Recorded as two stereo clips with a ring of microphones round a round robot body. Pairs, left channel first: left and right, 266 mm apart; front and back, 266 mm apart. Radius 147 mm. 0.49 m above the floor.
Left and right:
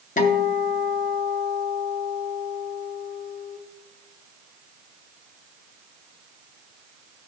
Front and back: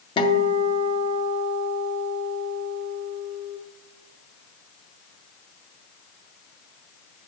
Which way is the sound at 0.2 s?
55° left.